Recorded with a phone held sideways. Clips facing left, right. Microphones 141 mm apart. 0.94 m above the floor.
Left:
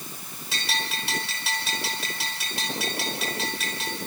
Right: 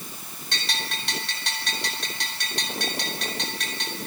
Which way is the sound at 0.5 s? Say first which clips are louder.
Left 2 dB; 5° left (ahead or behind).